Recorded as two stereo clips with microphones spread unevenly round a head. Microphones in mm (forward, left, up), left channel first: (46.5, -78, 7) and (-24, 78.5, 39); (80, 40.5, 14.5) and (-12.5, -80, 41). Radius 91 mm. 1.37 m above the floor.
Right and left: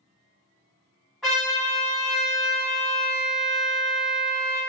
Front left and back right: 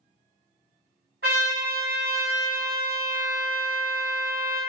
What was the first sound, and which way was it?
A trumpet, 160° right.